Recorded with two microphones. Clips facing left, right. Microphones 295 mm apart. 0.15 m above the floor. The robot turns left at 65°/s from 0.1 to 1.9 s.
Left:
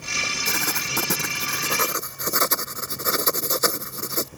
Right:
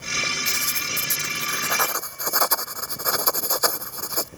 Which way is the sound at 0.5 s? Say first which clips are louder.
Left 6 dB; 120° left.